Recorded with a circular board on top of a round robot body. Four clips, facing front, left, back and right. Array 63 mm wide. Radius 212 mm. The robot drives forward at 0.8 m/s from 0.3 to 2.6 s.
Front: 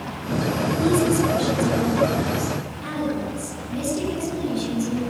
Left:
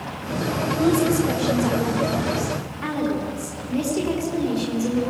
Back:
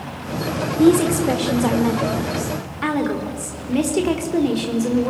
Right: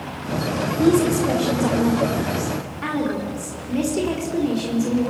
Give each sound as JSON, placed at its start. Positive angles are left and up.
{"t": 0.8, "sound": "a woman speaking", "azimuth_deg": -175, "distance_m": 2.5}